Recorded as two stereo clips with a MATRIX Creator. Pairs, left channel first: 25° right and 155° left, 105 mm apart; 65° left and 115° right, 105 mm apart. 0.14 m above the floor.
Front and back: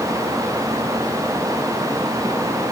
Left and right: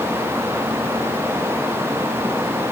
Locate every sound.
Only background noise.